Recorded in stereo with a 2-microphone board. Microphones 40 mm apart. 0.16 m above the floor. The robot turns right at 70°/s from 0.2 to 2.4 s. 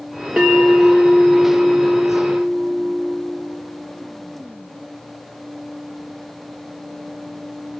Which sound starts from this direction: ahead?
A bell, at 0.4 s.